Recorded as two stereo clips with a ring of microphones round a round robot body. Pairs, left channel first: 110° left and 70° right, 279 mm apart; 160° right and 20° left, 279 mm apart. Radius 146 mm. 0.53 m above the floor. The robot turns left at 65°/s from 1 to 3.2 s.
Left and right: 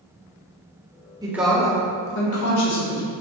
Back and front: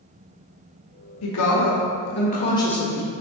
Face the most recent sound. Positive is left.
turn(degrees=90)